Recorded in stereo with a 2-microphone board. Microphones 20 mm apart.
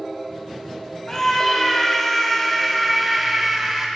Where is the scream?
25° left (ahead or behind), 2.5 m; by 3.9 s 15° right (ahead or behind), 2.5 m.